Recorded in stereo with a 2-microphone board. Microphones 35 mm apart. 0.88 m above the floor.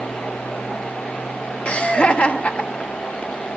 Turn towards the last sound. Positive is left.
turn(degrees=35)  # may be behind; listen again after turning